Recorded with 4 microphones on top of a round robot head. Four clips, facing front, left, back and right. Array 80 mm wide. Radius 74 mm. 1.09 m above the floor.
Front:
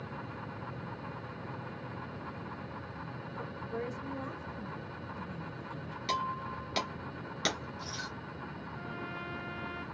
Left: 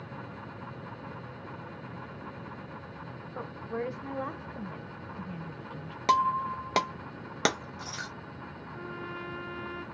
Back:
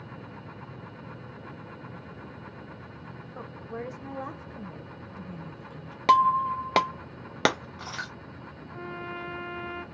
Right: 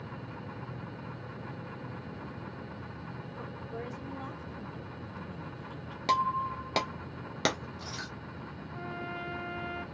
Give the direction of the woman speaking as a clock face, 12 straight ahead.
8 o'clock.